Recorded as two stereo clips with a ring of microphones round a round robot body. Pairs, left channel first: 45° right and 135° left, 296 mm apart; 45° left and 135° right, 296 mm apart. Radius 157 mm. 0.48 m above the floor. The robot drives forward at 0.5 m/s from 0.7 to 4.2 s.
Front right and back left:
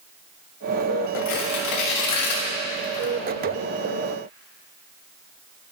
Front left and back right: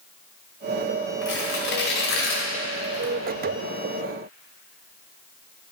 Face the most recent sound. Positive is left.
turn(degrees=-35)